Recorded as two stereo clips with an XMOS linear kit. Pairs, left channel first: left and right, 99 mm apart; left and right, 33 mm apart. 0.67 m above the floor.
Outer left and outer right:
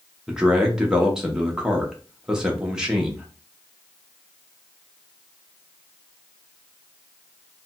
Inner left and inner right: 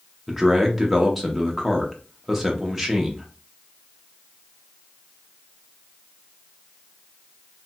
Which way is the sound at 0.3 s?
5° right (ahead or behind).